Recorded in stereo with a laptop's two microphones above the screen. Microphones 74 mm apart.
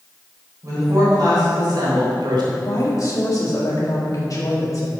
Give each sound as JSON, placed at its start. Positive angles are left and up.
{"t": 0.6, "sound": "a woman speaking", "side_deg": -50, "distance_m": 4.0}
{"t": 2.6, "sound": "a woman speaking", "side_deg": 50, "distance_m": 2.0}